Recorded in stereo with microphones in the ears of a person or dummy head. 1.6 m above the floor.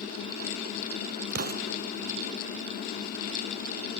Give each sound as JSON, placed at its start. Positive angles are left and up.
{"t": 1.3, "sound": "an explosion", "side_deg": -40, "distance_m": 0.6}